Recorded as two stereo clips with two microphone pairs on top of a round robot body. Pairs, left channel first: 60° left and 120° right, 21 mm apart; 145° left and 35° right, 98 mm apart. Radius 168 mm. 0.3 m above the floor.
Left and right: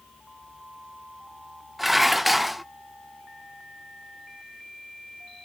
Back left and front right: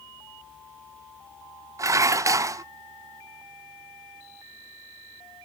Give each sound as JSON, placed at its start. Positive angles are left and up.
{"t": 1.8, "sound": "dishes clattering", "azimuth_deg": -45, "distance_m": 0.6}